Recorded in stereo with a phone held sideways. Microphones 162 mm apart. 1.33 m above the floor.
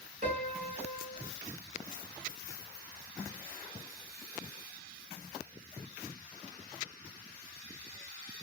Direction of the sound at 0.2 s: 55° right (ahead or behind).